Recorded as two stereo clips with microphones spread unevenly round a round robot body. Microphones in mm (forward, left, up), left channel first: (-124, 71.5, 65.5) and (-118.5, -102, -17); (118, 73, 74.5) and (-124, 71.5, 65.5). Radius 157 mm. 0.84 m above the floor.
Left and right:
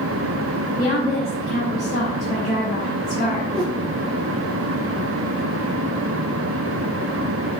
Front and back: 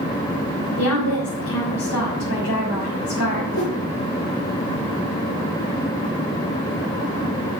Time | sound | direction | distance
0.8 | a woman speaking | straight ahead | 3.5 m
3.5 | a whoosh | straight ahead | 4 m